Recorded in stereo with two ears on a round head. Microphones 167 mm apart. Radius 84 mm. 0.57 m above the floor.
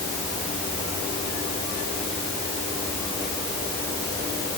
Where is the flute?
I don't hear a flute.